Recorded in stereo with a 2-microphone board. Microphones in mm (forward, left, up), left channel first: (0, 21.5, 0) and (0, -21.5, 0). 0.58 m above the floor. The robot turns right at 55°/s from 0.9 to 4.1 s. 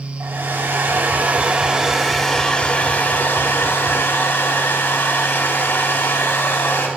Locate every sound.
0.2 s a hair dryer: 65° right, 3.5 m; by 6.9 s 110° left, 3.5 m